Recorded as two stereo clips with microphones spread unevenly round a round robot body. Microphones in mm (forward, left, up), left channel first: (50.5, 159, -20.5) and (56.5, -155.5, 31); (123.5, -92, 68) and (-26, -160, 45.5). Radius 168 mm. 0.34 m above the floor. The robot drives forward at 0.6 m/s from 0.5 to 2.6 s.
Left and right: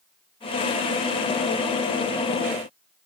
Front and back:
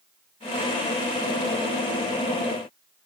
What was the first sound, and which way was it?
Only background noise.